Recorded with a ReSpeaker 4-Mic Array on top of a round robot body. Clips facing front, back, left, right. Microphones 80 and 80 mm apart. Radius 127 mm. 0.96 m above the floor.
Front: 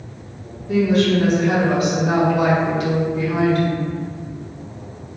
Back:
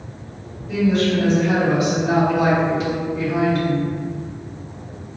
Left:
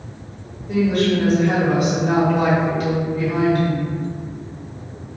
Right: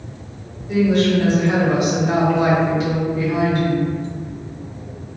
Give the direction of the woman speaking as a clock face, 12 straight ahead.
10 o'clock.